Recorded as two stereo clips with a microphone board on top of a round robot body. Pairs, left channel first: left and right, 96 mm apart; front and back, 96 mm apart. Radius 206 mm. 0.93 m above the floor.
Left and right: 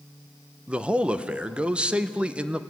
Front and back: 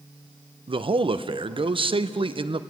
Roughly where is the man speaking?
Behind.